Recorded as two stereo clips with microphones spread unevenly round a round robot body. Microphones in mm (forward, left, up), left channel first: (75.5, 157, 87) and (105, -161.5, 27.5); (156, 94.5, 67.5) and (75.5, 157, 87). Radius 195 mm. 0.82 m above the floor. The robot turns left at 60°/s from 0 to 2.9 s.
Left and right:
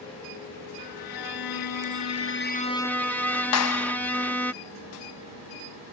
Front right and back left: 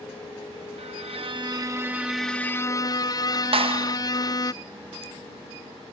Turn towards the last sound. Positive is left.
turn(degrees=130)